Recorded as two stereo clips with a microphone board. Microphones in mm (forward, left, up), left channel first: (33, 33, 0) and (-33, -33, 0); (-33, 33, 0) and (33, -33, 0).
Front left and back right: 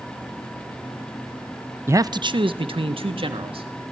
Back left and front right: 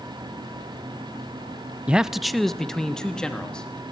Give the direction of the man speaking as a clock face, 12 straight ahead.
4 o'clock.